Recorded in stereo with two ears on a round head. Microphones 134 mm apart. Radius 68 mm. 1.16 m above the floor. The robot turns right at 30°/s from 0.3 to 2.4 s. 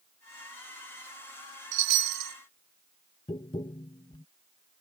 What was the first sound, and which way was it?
A chime, 80° right.